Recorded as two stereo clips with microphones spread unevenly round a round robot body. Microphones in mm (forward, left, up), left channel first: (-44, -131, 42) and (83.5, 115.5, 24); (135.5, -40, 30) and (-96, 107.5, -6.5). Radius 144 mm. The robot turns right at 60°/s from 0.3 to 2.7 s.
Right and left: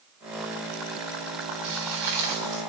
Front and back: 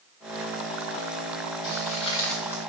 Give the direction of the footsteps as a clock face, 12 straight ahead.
12 o'clock.